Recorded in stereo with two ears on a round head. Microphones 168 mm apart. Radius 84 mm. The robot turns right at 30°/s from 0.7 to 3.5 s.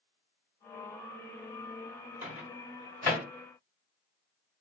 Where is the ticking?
I don't hear ticking.